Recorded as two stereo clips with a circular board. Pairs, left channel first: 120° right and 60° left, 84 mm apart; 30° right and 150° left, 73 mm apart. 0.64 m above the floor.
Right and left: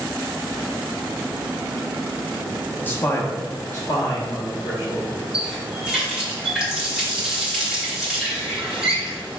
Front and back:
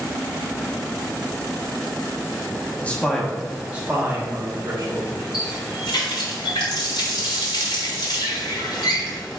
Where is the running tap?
25° right, 1.4 m.